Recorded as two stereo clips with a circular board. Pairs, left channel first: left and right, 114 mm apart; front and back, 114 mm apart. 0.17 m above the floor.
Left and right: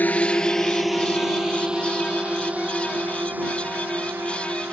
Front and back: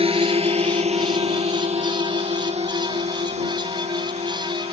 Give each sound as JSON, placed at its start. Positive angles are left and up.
{"t": 0.0, "sound": "a drone", "azimuth_deg": 165}